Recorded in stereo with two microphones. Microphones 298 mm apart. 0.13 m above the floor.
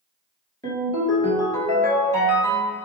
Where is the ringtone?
10° left (ahead or behind), 1.7 m.